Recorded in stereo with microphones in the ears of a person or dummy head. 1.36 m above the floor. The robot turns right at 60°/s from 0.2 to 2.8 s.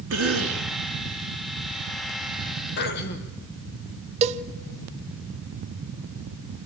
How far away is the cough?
About 2.5 m.